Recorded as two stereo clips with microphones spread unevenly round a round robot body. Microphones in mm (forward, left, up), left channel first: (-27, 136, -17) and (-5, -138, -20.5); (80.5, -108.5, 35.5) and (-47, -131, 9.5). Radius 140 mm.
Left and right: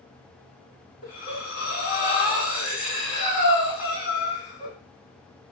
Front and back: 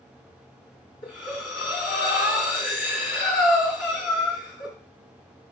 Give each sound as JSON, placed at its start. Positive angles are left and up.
{"t": 1.0, "sound": "breathing", "azimuth_deg": 35, "distance_m": 1.9}